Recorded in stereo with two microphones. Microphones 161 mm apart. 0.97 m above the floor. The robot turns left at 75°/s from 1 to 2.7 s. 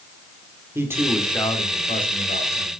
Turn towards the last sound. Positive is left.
turn(degrees=65)